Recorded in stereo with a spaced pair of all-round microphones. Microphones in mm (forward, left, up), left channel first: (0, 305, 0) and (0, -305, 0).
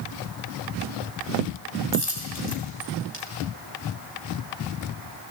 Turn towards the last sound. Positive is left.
turn(degrees=40)  # may be behind; listen again after turning